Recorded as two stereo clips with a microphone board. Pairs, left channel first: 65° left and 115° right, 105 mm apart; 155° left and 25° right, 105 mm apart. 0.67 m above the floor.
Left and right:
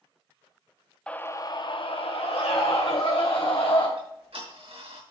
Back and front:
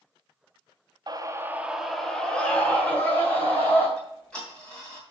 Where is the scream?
10° right, 0.7 m; by 3.9 s 90° left, 3 m.